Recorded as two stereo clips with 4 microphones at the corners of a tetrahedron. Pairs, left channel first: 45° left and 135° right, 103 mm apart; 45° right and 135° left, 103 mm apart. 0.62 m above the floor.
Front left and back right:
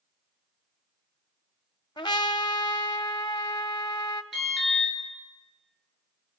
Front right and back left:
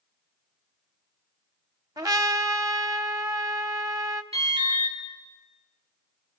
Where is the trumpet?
85° left, 0.9 m.